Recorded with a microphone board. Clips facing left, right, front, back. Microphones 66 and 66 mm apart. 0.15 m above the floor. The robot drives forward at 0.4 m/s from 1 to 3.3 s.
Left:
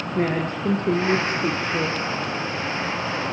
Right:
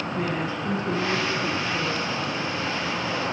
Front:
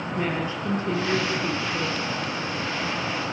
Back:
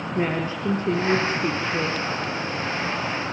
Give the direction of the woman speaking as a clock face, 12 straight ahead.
8 o'clock.